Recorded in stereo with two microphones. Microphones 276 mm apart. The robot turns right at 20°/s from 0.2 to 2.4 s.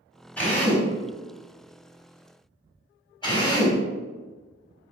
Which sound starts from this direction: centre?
A drill, at 0.4 s.